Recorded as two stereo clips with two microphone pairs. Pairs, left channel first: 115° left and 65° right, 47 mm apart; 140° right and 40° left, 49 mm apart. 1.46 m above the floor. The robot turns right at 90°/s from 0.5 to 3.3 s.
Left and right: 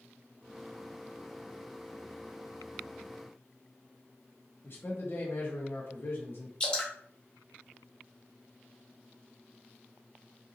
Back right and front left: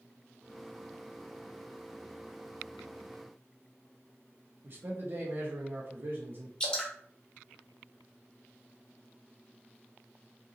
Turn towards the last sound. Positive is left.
turn(degrees=170)